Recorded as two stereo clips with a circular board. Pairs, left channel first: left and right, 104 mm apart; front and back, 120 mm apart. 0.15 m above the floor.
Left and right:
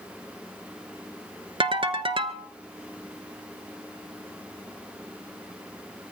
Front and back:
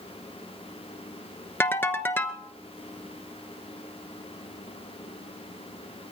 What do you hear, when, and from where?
1.6 s a ringtone: 70° right, 0.9 m